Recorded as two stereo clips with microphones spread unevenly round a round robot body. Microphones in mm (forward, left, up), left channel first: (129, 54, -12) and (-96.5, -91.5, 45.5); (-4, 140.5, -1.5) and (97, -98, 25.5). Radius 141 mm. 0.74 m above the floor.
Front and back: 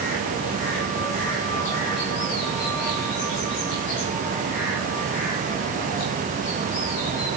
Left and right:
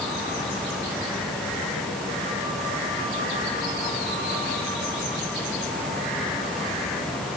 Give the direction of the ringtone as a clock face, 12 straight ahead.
No ringtone in this recording.